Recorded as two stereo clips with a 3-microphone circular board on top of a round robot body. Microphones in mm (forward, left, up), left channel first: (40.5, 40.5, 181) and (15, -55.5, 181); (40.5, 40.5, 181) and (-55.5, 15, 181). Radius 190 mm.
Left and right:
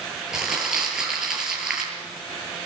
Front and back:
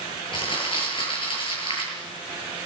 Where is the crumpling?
20° right, 7.5 m.